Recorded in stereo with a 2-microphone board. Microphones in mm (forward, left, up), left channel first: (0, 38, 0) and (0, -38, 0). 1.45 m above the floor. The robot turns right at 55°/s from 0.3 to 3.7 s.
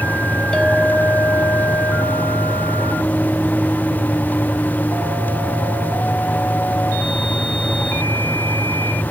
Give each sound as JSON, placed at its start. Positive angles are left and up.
{"t": 0.5, "sound": "a clink", "azimuth_deg": 15, "distance_m": 1.2}